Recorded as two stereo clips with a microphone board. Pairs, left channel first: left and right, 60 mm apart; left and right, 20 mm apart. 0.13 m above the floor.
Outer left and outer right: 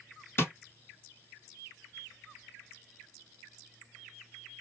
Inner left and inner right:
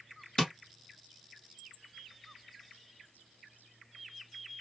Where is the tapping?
40° left (ahead or behind), 2 m.